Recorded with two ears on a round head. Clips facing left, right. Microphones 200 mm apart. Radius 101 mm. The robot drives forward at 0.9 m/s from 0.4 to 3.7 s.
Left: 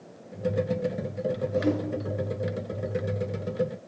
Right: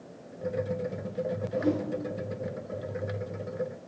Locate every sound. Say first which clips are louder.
1.5 s a whoosh: even; 45° left (ahead or behind), 2.0 m; by 1.9 s 40° left (ahead or behind), 2 m